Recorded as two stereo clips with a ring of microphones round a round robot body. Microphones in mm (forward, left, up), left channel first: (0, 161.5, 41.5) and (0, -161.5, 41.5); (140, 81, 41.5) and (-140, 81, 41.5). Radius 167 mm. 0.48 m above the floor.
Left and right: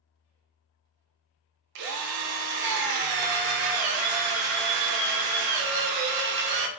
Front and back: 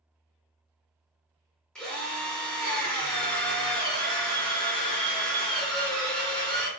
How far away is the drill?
About 0.6 m.